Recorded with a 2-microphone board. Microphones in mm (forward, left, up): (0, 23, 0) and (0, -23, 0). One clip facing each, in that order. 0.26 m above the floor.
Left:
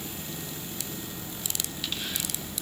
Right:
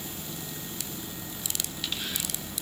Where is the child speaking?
I don't hear a child speaking.